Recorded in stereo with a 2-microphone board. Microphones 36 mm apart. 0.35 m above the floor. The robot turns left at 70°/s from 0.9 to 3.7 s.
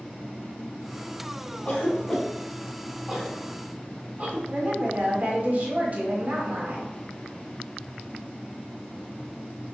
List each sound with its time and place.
1.6 s a cough: 40° left (ahead or behind), 1.8 m; by 4.4 s 40° right (ahead or behind), 1.8 m
4.5 s a woman speaking: 40° right (ahead or behind), 1.8 m